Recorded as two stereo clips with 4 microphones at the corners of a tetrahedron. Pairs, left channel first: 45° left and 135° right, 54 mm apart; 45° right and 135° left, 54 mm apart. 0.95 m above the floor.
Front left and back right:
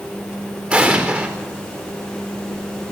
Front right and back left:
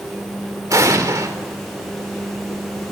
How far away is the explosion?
About 3.5 m.